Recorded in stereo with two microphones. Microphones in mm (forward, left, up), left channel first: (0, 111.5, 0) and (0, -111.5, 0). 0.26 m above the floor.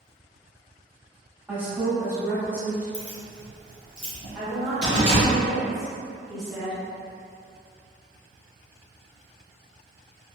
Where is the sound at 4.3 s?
Centre (ahead or behind), 1.7 m.